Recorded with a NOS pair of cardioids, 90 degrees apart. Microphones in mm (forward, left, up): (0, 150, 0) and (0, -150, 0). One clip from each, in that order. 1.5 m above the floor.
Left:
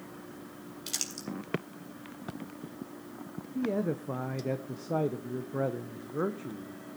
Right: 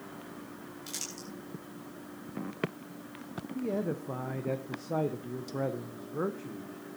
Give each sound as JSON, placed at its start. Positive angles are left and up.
{"t": 0.9, "sound": "crumpling", "azimuth_deg": 50, "distance_m": 3.5}
{"t": 3.5, "sound": "a man speaking", "azimuth_deg": 10, "distance_m": 0.8}